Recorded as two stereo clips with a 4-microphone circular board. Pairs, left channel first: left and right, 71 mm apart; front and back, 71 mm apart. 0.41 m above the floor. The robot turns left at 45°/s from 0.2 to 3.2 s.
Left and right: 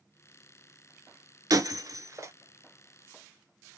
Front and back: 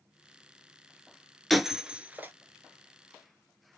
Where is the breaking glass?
90° right, 0.6 m; by 2.3 s 125° right, 0.6 m.